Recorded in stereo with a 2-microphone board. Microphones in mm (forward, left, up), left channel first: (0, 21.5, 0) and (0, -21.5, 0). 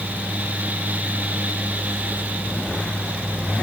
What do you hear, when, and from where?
Only background noise.